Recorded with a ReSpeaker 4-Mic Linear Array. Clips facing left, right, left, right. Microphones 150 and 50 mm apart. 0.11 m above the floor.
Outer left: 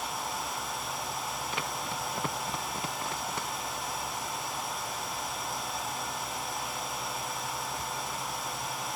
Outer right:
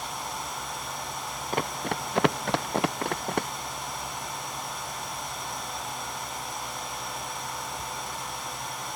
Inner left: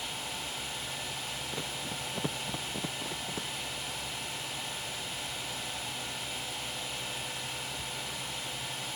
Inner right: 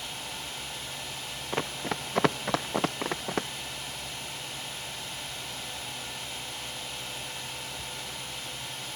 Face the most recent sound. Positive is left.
turn(degrees=-60)  # may be behind; listen again after turning